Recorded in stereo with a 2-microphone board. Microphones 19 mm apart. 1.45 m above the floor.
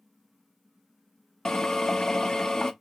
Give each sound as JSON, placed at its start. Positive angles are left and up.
{"t": 1.4, "sound": "a drill", "side_deg": 25, "distance_m": 0.7}